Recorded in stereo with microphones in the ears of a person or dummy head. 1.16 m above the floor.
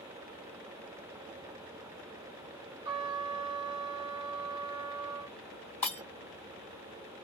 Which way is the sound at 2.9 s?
25° right (ahead or behind).